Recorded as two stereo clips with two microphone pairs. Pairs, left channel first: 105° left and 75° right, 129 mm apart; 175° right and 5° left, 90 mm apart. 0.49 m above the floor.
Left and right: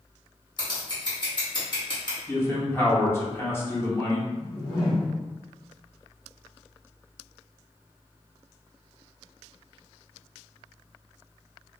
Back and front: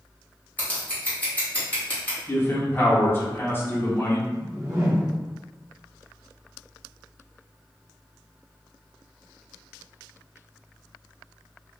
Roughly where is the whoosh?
Ahead left.